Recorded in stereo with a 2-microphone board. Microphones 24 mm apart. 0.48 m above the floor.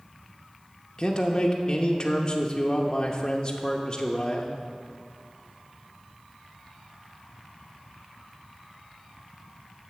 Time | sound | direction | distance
1.0 | a man speaking | 30° left (ahead or behind) | 0.8 m